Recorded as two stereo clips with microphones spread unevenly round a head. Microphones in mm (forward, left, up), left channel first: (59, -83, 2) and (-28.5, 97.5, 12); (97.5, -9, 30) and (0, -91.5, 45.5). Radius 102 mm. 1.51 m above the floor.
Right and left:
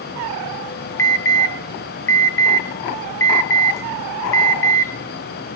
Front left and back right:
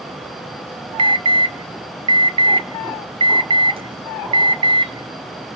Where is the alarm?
125° right, 1.0 m.